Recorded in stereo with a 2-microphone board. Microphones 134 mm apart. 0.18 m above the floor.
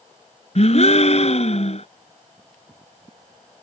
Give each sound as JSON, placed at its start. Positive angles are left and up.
{"t": 0.6, "sound": "a gasp", "side_deg": 55}